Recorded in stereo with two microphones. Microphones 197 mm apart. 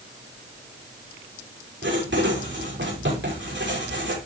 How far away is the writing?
About 9 m.